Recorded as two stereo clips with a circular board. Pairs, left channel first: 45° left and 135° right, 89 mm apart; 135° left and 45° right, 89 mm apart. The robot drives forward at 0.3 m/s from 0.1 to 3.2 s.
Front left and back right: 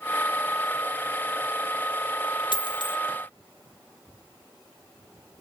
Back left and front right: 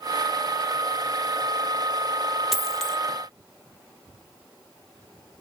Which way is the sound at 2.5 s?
40° left.